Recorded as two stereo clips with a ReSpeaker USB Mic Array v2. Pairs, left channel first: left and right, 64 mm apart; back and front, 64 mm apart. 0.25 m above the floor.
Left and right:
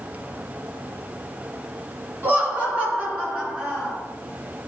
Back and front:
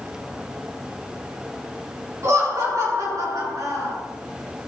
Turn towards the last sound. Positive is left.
turn(degrees=-15)